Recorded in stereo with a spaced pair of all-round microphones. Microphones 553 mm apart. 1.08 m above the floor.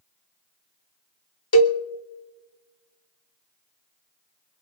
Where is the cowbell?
45° left (ahead or behind), 0.7 m.